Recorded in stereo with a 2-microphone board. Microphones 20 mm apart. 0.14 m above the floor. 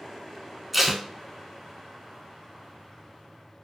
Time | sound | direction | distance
0.7 | tape being pulled | 5° right (ahead or behind) | 0.6 m